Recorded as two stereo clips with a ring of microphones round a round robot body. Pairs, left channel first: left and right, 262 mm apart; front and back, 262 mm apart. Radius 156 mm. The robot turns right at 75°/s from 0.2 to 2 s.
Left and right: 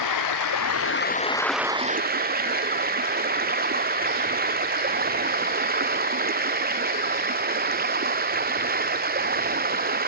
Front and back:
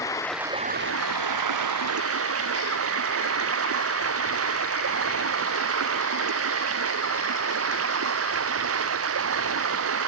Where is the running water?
80° left; by 10.1 s 145° right.